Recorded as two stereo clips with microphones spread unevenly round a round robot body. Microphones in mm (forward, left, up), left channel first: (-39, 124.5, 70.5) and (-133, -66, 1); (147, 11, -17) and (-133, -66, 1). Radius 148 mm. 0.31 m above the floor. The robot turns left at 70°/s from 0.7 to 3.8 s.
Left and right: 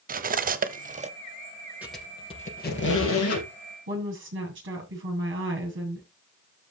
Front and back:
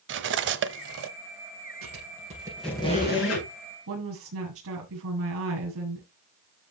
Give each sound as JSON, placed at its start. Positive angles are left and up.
{"t": 0.1, "sound": "cutlery clinking", "azimuth_deg": -120, "distance_m": 1.1}
{"t": 1.8, "sound": "a squeak", "azimuth_deg": 160, "distance_m": 5.0}
{"t": 3.9, "sound": "a woman speaking", "azimuth_deg": -125, "distance_m": 7.0}